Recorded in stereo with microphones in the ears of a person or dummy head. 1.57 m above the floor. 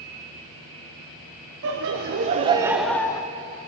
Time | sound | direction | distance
1.6 | laughter | 70° right (ahead or behind) | 0.8 m